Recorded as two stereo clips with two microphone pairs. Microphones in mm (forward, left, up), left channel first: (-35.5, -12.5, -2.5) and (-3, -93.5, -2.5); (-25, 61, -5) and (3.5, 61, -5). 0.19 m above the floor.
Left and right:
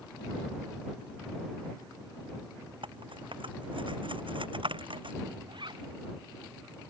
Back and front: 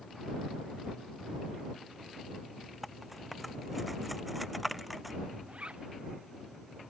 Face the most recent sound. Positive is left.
turn(degrees=-40)